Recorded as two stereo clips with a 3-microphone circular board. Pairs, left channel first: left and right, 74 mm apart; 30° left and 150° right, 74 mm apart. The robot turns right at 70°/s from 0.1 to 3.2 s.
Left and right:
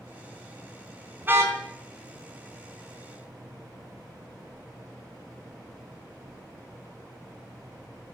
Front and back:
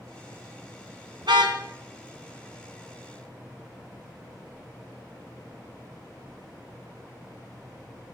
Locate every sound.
1.2 s a car horn: 155° right, 4 m; by 1.6 s 130° right, 4 m